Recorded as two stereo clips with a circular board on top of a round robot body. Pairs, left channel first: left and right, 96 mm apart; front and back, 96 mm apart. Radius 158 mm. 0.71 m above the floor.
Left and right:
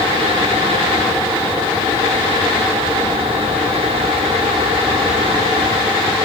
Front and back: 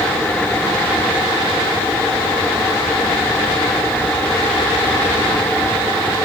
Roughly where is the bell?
I don't hear a bell.